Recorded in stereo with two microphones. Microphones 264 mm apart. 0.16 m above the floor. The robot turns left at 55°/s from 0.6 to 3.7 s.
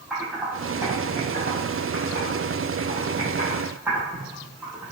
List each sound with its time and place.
0.1 s typing on a keyboard: centre (ahead or behind), 3 m; by 4.9 s 10° right (ahead or behind), 3 m